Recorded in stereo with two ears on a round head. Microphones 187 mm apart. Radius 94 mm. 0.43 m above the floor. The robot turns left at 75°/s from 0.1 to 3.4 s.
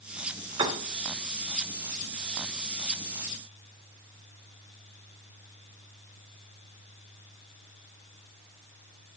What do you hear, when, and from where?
0.6 s a piano: 20° right (ahead or behind), 1.0 m; by 0.8 s 25° right (ahead or behind), 1.0 m